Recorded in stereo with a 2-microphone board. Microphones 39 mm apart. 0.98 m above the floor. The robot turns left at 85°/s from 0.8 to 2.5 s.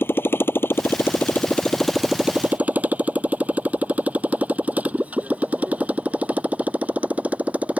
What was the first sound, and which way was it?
A motorcycle, 85° left.